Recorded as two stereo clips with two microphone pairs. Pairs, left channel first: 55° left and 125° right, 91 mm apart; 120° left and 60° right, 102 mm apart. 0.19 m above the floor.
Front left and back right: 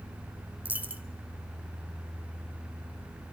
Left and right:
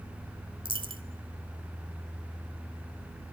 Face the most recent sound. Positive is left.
turn(degrees=-55)